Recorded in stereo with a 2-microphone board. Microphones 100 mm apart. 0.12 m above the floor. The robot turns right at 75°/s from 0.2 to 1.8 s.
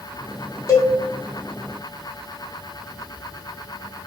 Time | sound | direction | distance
0.7 | a cowbell | 35° left (ahead or behind) | 0.6 m